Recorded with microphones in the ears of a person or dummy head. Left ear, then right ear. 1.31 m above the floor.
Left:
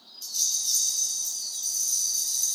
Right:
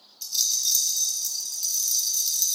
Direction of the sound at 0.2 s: 20° right (ahead or behind).